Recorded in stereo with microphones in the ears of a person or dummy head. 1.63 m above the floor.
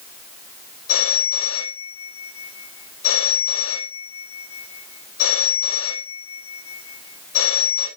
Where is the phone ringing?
80° left, 5.5 m.